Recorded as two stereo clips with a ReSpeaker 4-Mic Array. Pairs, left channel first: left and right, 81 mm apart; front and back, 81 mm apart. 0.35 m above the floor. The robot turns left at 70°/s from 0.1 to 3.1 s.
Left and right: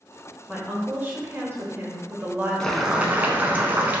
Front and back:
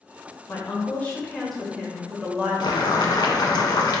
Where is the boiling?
10° left, 0.5 m; by 4.0 s 25° right, 0.5 m.